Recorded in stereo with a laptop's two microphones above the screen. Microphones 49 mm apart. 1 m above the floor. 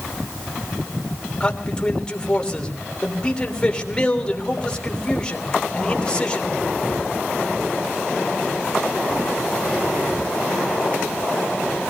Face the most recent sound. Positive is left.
turn(degrees=15)  # may be behind; listen again after turning